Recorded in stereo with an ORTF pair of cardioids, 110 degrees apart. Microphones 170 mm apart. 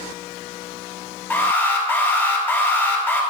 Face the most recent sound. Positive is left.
turn(degrees=10)